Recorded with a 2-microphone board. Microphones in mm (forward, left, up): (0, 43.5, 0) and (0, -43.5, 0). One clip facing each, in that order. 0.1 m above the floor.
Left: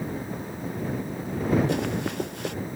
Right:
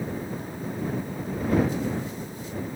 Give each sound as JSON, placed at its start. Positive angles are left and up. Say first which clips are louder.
{"t": 1.7, "sound": "running footsteps", "louder": "left 2 dB", "side_deg": 70}